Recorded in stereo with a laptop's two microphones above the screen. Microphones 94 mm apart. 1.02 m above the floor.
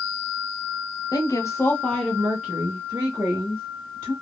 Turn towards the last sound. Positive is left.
turn(degrees=-35)  # may be behind; listen again after turning